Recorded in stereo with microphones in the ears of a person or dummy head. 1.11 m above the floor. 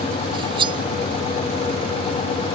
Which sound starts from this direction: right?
Cutlery clinking, at 0.3 s.